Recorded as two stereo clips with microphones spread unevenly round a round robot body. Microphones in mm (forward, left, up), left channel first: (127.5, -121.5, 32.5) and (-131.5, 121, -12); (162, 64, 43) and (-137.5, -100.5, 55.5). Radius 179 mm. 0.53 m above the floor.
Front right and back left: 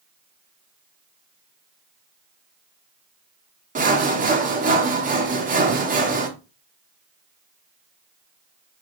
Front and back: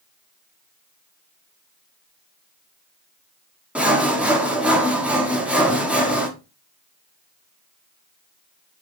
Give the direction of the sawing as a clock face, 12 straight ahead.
8 o'clock.